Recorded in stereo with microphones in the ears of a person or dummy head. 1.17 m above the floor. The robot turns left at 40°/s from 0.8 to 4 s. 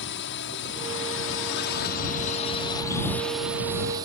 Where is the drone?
60° left (ahead or behind); by 4.1 s 20° right (ahead or behind).